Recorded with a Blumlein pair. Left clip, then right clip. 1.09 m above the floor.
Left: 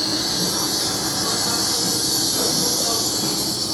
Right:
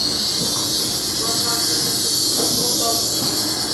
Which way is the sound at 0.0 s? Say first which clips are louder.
Right 1 dB; 20° right.